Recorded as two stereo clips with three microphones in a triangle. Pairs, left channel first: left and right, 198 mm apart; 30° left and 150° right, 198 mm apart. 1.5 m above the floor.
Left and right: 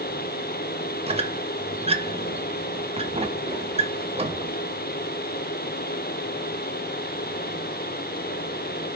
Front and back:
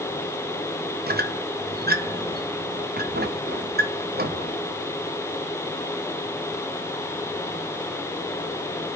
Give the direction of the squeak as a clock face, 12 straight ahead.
5 o'clock.